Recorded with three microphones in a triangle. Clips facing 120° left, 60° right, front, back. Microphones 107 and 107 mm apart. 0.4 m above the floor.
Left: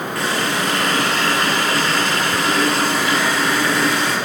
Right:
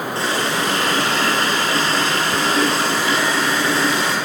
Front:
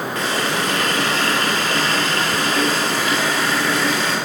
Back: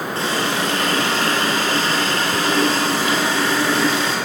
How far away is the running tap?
About 6 m.